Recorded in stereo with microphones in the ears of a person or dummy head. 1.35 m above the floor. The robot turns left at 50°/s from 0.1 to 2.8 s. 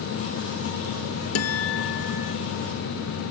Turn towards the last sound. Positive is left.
turn(degrees=25)